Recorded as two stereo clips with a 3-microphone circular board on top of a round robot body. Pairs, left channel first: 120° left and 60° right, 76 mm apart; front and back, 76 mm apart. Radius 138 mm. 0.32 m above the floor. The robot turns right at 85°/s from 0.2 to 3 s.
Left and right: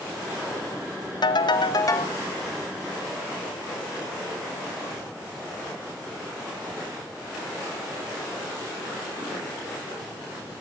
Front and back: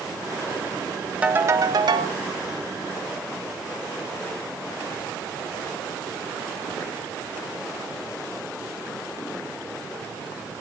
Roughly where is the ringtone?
Left.